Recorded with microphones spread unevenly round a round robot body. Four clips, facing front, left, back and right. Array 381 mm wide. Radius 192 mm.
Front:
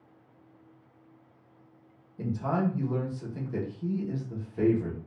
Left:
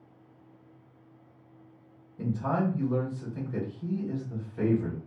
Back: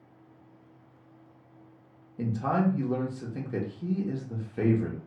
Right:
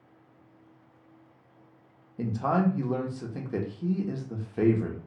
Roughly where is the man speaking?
Behind right.